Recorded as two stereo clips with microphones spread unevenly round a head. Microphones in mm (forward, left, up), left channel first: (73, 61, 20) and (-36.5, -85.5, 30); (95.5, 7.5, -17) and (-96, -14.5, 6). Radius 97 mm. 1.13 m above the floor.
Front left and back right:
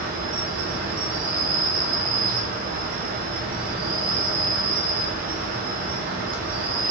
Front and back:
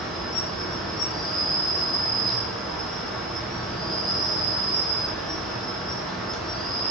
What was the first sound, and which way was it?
An insect, 85° right.